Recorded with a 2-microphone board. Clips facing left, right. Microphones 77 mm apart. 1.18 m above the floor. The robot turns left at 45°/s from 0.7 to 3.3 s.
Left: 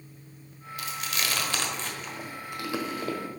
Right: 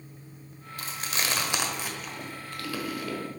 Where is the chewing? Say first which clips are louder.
Even; 40° right (ahead or behind), 1.2 m; by 3.2 s 35° left (ahead or behind), 1.2 m.